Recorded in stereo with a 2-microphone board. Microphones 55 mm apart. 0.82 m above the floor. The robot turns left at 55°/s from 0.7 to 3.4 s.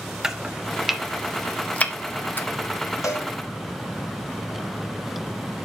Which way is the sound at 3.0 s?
80° left.